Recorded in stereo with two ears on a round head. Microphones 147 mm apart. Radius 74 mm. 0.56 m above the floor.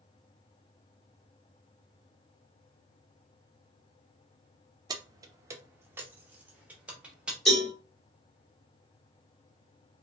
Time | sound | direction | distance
4.9 | keys jangling | 25° right (ahead or behind) | 0.6 m
7.5 | a cowbell | centre (ahead or behind) | 2.0 m